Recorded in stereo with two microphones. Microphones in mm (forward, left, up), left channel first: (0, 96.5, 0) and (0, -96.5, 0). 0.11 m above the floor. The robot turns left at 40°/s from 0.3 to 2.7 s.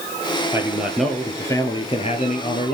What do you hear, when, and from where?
0.5 s a man speaking: 160° right, 1.8 m; by 2.8 s 110° left, 1.8 m